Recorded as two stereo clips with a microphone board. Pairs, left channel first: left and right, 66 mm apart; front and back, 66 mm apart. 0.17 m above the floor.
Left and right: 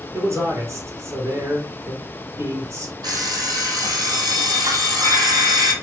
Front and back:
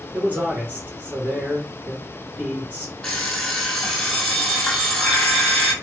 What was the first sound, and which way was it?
A man speaking, 120° right.